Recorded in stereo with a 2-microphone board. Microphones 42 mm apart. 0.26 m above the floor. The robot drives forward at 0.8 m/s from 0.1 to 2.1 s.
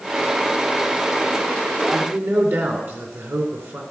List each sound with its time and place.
1.9 s a man speaking: 60° right (ahead or behind), 2.5 m